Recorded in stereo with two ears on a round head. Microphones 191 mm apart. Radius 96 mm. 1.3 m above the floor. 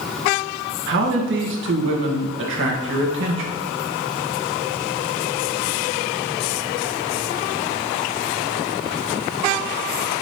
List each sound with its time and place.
0.9 s a man speaking: 65° right (ahead or behind), 1.6 m